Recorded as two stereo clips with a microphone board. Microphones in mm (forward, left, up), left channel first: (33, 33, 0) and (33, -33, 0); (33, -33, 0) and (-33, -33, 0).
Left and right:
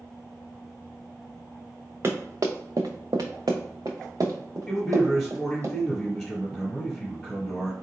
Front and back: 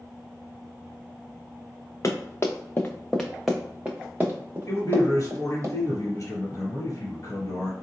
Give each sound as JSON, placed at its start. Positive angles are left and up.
{"t": 2.0, "sound": "running footsteps", "azimuth_deg": -40, "distance_m": 0.9}
{"t": 4.7, "sound": "a man speaking", "azimuth_deg": 10, "distance_m": 1.5}